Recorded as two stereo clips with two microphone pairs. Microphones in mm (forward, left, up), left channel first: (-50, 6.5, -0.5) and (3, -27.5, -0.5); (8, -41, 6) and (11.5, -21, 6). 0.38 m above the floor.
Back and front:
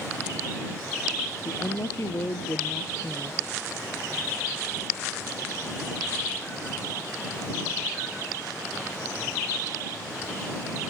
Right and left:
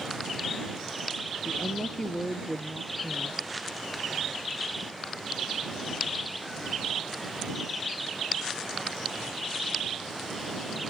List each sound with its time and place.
1.4 s a woman speaking: 170° right